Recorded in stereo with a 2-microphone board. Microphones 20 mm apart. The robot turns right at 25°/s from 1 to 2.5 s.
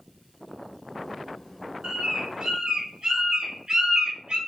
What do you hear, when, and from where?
1.8 s a bird: 60° right (ahead or behind), 0.8 m; by 4.4 s 45° right (ahead or behind), 0.8 m